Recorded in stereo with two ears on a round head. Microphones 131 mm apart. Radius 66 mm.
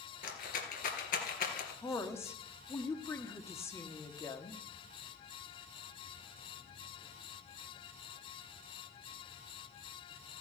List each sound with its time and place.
0.2 s a rattle: 65° left (ahead or behind), 2.5 m
1.8 s a woman speaking: 20° left (ahead or behind), 1.5 m